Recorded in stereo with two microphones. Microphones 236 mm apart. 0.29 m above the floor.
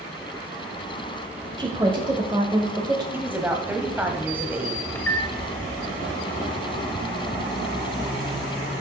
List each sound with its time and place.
1.6 s a woman speaking: 20° right (ahead or behind), 1.0 m
3.1 s a woman speaking: 10° right (ahead or behind), 1.2 m
5.0 s a microwave: 10° left (ahead or behind), 0.7 m